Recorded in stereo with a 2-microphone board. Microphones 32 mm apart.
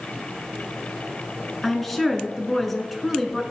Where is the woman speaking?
5° left (ahead or behind), 1.5 m.